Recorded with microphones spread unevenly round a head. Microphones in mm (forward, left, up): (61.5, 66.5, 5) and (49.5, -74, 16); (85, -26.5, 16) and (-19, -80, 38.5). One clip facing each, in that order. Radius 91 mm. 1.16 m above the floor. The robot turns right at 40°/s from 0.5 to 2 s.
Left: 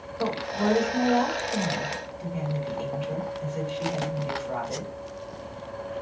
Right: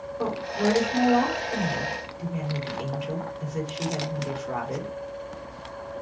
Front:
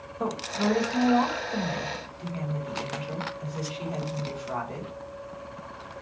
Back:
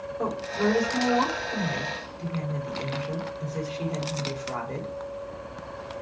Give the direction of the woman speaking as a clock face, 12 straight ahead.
6 o'clock.